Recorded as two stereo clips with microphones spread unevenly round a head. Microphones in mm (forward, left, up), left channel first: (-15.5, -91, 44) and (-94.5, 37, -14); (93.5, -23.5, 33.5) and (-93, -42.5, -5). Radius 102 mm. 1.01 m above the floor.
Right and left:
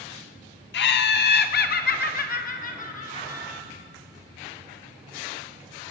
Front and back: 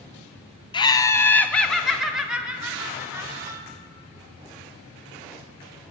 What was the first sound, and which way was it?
Laughter, 65° right.